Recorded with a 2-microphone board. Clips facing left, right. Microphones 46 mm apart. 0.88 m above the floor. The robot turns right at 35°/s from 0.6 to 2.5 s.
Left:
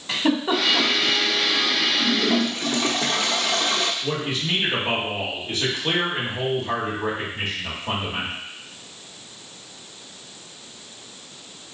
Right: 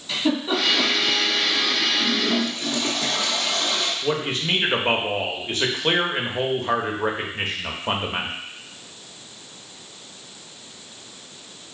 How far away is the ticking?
No ticking in this recording.